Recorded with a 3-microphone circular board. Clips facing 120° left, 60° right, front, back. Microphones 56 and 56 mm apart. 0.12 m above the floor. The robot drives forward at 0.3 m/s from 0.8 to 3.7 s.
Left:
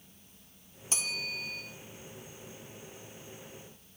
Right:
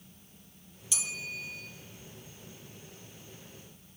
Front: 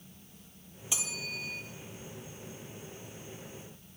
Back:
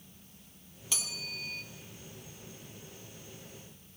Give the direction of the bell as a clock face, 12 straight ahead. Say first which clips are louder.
Left 2 dB, front 2 dB; 10 o'clock.